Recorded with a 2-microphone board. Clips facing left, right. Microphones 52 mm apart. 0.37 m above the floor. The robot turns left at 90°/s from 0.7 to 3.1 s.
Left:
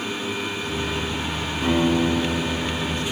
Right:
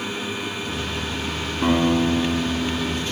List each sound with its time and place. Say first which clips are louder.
1.6 s a guitar: right 1 dB; 145° right, 1.6 m; by 3.0 s 90° left, 1.6 m